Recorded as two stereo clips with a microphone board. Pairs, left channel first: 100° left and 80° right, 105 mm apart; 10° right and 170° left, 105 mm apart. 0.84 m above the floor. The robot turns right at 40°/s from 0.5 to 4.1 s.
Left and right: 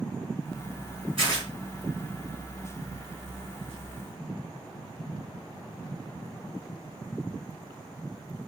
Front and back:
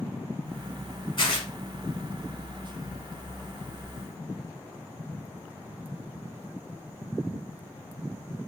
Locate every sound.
1.2 s tearing paper: 55° right, 3 m; by 1.5 s 40° right, 3 m